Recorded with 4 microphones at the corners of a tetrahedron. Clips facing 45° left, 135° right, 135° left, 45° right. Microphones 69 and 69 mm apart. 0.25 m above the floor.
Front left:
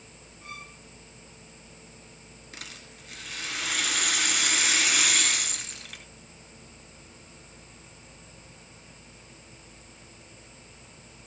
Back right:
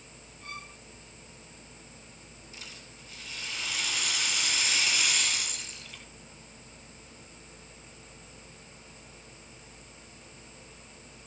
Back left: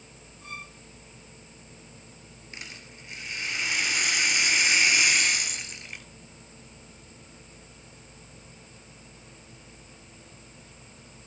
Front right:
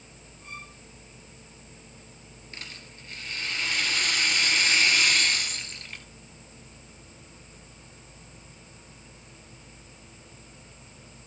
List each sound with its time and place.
0.4 s a violin: 125° left, 8.5 m
2.5 s a rattle: 60° left, 2.5 m